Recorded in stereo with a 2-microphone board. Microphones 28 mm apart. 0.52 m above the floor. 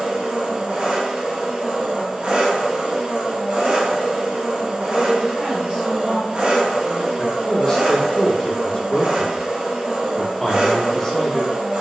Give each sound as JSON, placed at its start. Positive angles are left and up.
{"t": 0.0, "sound": "an engine running", "side_deg": -50, "distance_m": 1.0}
{"t": 4.9, "sound": "a woman speaking", "side_deg": -40, "distance_m": 1.5}
{"t": 7.2, "sound": "a man speaking", "side_deg": 25, "distance_m": 0.8}